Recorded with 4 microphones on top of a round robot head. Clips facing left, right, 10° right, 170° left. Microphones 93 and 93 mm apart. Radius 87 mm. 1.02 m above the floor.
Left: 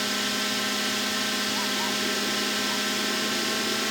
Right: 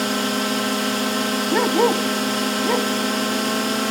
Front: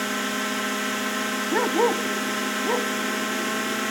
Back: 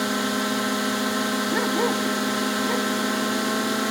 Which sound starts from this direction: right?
A dog barking, at 1.5 s.